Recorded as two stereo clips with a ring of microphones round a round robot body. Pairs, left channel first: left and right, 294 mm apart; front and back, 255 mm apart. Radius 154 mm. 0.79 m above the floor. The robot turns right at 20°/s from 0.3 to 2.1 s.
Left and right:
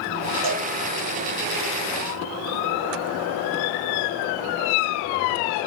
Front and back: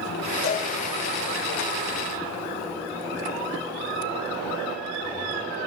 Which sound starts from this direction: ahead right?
A cowbell, at 0.4 s.